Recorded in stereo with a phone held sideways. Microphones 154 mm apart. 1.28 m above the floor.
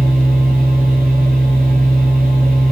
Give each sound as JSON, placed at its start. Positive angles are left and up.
{"t": 0.0, "sound": "a machine running", "side_deg": -70, "distance_m": 8.0}